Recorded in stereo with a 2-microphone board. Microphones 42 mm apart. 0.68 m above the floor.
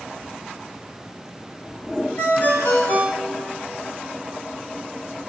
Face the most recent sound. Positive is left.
turn(degrees=50)  # may be behind; listen again after turning